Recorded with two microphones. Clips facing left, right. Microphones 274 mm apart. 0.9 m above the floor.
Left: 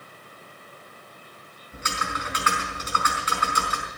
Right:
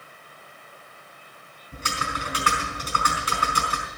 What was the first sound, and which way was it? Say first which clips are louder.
Typing on a keyboard: right 1 dB; 35° right (ahead or behind).